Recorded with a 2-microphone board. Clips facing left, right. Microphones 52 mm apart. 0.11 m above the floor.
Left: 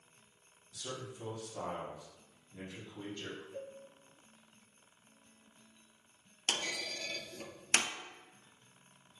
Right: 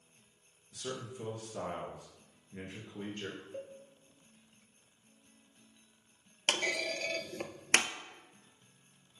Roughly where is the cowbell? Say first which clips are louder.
Right 1 dB; right.